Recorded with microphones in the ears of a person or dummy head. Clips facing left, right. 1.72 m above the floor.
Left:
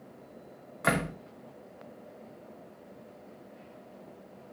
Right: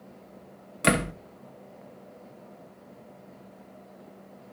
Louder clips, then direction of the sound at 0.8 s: Right 5 dB; 35° right (ahead or behind).